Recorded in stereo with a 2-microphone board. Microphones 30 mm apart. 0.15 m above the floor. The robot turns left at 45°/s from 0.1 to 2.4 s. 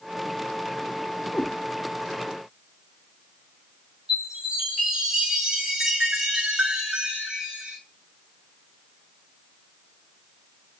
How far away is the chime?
About 2 m.